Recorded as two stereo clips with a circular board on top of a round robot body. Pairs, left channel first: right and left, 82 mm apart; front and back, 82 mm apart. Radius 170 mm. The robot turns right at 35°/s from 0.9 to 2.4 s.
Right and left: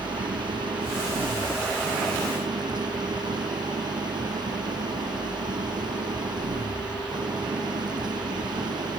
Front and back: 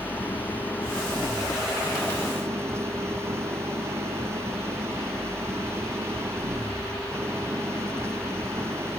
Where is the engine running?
65° left; by 9.0 s 120° left.